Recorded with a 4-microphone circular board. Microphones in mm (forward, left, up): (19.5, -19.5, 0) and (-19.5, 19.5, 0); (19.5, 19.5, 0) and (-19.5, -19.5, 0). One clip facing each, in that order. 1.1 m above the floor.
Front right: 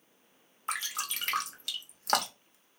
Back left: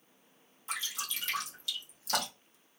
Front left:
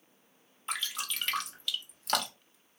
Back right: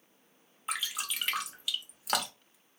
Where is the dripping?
50° right, 0.6 m.